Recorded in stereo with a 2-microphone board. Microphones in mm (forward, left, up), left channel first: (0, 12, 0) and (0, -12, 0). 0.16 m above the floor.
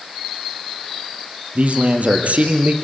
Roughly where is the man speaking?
Right.